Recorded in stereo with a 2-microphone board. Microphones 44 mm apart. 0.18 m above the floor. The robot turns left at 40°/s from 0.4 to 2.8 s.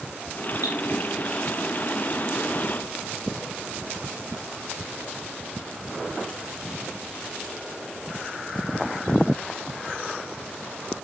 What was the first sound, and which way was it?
Dripping, 75° right (ahead or behind).